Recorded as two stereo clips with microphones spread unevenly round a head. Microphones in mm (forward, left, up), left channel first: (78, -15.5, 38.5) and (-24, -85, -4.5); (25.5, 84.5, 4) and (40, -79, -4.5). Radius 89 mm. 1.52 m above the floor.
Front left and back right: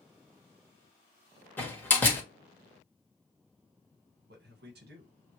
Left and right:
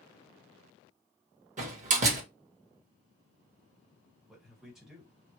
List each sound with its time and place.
1.6 s a door slam: 40° right, 1.5 m
4.3 s a man speaking: 175° right, 1.2 m